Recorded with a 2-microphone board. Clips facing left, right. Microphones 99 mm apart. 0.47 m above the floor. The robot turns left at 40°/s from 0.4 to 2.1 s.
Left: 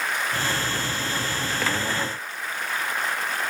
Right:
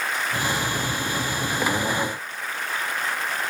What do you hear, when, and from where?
Only background noise.